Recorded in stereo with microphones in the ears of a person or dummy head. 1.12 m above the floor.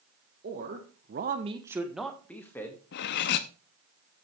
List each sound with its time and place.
0.4 s a man speaking: 50° right (ahead or behind), 1.5 m; by 2.8 s 20° left (ahead or behind), 2 m
2.9 s cutlery clinking: 55° left (ahead or behind), 0.6 m